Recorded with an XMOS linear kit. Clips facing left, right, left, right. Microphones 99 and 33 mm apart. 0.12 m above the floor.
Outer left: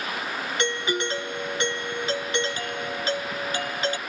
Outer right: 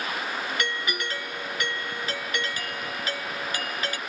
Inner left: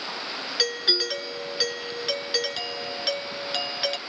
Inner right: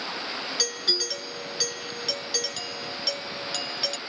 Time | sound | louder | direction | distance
0.6 | a doorbell | outer left 4 dB, inner left 4 dB | 25° left (ahead or behind) | ?